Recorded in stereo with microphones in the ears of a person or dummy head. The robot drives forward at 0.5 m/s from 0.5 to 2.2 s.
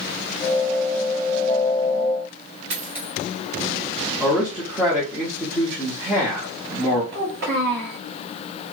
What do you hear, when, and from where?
2.7 s a dropped coin: 30° right (ahead or behind), 1.3 m
4.2 s a man speaking: 5° right (ahead or behind), 1.0 m
7.1 s a child speaking: 55° right (ahead or behind), 1.4 m